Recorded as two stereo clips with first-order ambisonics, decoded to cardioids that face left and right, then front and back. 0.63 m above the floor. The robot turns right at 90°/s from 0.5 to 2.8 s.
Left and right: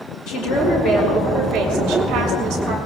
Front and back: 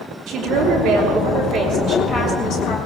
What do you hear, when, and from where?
0.3 s a woman speaking: 120° left, 5 m; by 2.8 s 35° right, 5 m